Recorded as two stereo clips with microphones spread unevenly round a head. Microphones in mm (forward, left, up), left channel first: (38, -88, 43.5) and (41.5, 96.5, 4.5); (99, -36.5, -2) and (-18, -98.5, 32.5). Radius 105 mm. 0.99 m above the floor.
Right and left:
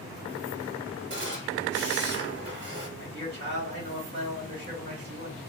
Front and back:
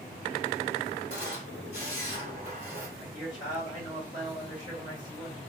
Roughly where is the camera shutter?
Left.